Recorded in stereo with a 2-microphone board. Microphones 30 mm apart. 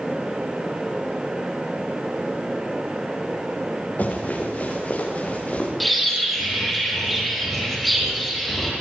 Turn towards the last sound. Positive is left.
turn(degrees=0)  # may be behind; listen again after turning